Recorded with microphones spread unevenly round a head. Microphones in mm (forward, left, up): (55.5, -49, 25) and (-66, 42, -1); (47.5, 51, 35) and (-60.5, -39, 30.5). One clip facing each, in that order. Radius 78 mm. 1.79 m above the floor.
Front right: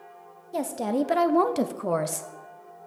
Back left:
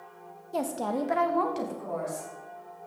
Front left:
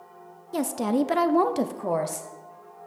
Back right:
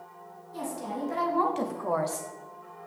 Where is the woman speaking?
45° left, 0.8 m; by 2.3 s 40° right, 1.0 m.